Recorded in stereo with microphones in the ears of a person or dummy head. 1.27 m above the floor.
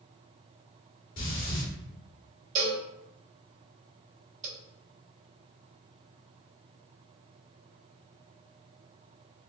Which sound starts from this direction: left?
Breathing, at 1.2 s.